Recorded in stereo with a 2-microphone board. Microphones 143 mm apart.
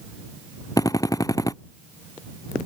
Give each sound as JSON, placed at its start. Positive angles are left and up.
{"t": 0.8, "sound": "a drill", "side_deg": 25}